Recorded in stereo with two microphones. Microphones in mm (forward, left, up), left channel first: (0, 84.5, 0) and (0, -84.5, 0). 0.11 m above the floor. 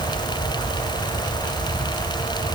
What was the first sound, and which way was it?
Only background noise.